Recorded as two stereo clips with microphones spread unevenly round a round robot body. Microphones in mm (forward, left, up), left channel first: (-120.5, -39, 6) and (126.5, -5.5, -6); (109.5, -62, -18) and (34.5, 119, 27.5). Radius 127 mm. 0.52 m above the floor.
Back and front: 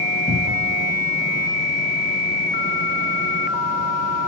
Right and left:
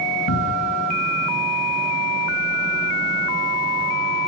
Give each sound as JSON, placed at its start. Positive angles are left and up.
{"t": 0.3, "sound": "a cupboard door", "azimuth_deg": -95, "distance_m": 2.0}